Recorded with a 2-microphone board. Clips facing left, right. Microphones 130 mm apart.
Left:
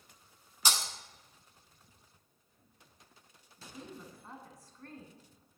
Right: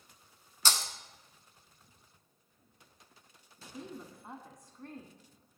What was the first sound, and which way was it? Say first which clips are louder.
Breaking glass: even; 15° left (ahead or behind).